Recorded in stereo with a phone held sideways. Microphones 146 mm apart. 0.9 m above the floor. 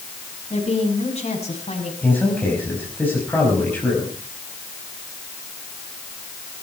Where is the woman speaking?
45° left (ahead or behind), 6.5 m.